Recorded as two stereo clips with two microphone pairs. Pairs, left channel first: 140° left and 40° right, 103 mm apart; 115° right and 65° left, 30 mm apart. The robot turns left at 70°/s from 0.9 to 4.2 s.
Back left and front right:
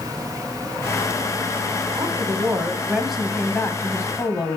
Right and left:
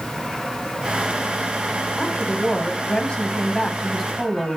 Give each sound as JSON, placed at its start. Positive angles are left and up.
{"t": 2.0, "sound": "a woman speaking", "azimuth_deg": -45, "distance_m": 1.5}